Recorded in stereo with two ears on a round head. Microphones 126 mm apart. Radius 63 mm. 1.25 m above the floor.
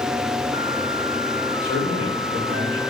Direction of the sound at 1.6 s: 40° left (ahead or behind).